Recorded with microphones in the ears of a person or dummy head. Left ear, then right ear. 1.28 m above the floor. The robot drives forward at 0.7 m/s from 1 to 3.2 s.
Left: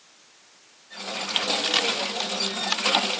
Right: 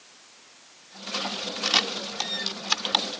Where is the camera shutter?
5° left (ahead or behind).